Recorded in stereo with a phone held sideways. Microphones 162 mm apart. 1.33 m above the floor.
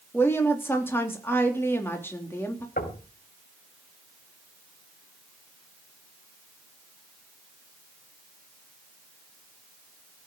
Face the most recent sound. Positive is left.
turn(degrees=80)